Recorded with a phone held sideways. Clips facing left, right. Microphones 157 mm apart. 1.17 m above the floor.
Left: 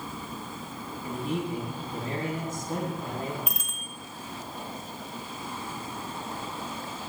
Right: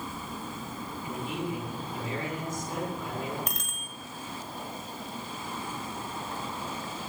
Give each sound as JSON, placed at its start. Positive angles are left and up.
{"t": 1.0, "sound": "a man speaking", "side_deg": 50, "distance_m": 8.5}
{"t": 3.5, "sound": "a bicycle bell", "side_deg": 5, "distance_m": 3.5}